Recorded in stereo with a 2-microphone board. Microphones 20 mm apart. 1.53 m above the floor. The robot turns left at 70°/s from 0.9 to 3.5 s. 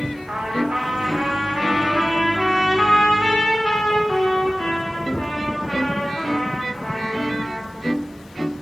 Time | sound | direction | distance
0.3 | a trumpet | 65° right | 3.5 m